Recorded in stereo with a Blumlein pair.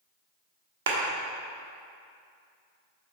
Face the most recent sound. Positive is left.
turn(degrees=-60)